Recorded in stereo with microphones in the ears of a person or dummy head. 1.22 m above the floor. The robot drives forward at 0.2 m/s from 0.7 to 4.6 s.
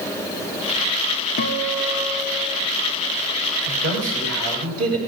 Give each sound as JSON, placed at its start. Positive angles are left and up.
{"t": 1.4, "sound": "a guitar", "side_deg": 50, "distance_m": 1.0}
{"t": 3.6, "sound": "a man speaking", "side_deg": -65, "distance_m": 5.5}